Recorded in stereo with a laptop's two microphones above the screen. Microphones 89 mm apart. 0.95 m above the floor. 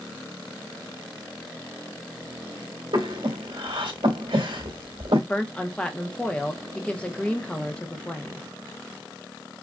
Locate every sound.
2.9 s breathing: 80° right, 2 m
5.3 s a woman speaking: 10° left (ahead or behind), 0.8 m